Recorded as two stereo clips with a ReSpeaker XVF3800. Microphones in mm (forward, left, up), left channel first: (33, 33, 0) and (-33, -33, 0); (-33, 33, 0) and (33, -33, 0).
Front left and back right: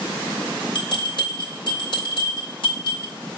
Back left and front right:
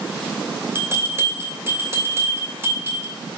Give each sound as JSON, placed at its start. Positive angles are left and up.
{"t": 0.8, "sound": "a bell", "azimuth_deg": 15, "distance_m": 2.5}